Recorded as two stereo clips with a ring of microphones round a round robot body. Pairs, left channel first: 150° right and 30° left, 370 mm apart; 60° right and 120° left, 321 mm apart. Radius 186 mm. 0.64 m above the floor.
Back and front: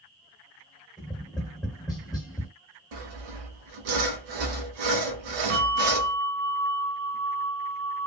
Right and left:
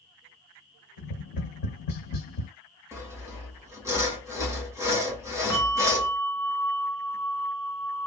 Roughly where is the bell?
Ahead.